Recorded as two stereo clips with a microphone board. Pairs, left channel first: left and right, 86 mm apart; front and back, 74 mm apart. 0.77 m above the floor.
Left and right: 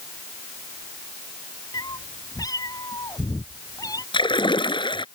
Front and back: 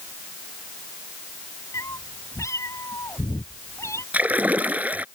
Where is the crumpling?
I don't hear crumpling.